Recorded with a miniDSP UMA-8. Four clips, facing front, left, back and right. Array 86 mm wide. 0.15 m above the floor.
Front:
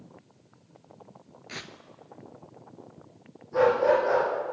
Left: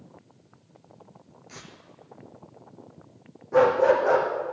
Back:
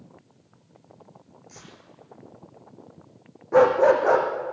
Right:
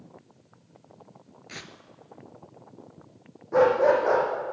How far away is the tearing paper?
About 1.3 m.